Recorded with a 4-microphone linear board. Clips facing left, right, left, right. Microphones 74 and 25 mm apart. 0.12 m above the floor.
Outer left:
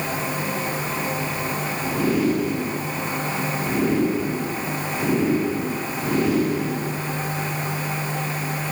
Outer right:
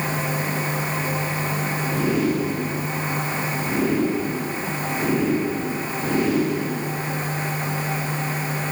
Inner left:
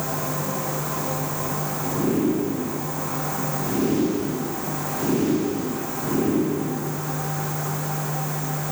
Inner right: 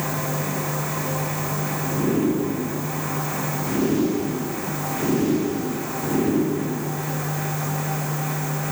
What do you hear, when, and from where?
Only background noise.